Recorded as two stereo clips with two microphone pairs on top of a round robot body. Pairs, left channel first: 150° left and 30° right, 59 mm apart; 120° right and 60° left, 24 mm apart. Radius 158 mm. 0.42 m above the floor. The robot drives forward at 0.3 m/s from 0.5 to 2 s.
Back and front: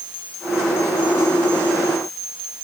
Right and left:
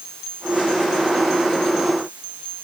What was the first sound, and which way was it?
Only background noise.